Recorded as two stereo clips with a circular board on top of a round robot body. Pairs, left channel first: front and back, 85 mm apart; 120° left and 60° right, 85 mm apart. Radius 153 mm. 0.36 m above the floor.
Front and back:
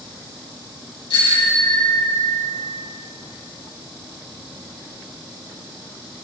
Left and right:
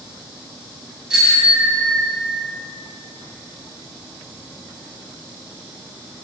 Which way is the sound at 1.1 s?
20° left.